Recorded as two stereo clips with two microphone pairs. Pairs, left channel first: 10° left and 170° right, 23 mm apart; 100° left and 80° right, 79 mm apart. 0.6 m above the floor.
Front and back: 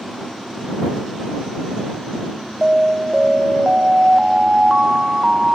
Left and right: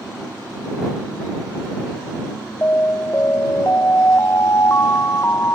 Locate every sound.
2.6 s an alarm: 145° left